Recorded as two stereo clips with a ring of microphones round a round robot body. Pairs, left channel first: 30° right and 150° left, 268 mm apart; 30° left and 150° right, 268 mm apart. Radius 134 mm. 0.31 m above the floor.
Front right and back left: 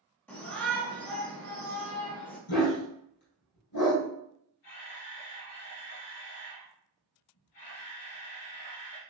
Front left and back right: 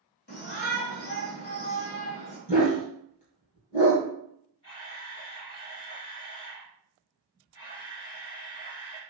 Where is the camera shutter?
45° right, 2 m.